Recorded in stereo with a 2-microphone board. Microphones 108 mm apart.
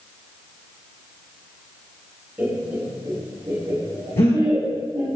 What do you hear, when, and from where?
2.4 s laughter: 20° right (ahead or behind), 1.2 m; by 5.2 s 45° right (ahead or behind), 2 m
4.2 s breathing: 80° left, 1.4 m